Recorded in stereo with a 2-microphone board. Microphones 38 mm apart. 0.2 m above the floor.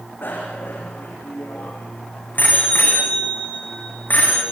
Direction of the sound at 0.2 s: 65° left (ahead or behind).